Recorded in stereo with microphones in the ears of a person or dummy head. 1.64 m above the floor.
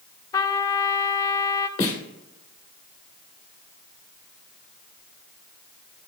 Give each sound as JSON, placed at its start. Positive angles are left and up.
{"t": 0.3, "sound": "a trumpet", "side_deg": 20, "distance_m": 0.5}
{"t": 1.8, "sound": "a snare drum", "side_deg": 25, "distance_m": 2.0}